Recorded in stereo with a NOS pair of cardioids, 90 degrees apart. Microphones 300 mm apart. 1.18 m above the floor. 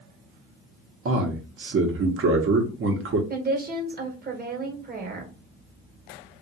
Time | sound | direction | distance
1.1 | a man speaking | 50° right | 1.1 m
3.3 | a woman speaking | 35° right | 1.4 m